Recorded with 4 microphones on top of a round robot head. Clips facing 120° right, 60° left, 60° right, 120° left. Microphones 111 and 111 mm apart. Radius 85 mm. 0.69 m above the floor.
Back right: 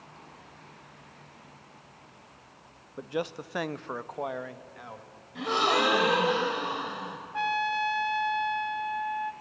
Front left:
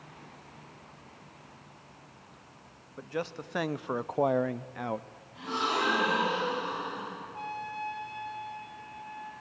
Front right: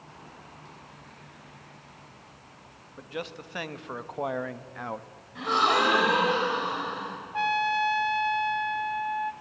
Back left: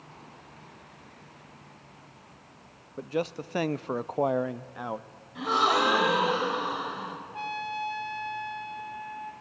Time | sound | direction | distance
3.0 | a man speaking | 170° left | 0.8 m
5.3 | a gasp | 155° right | 3 m
7.3 | a trumpet | 95° right | 0.5 m